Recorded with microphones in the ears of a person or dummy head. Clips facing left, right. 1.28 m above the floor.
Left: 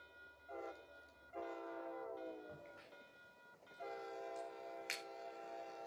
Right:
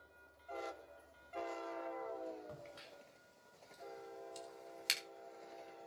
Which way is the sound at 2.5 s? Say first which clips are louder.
Right 3 dB; 55° right (ahead or behind).